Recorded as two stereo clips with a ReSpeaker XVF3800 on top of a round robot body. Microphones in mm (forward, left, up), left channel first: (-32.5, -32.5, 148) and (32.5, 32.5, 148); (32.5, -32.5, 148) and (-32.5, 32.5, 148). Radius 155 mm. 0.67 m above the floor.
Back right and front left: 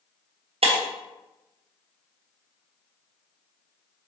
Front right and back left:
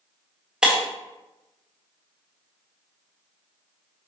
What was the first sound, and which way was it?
Breaking glass, 55° left.